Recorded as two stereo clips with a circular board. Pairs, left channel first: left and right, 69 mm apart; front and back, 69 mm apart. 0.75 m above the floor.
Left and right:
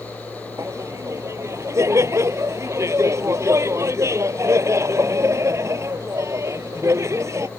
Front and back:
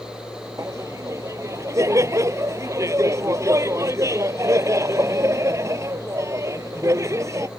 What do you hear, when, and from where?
0.6 s laughter: 135° right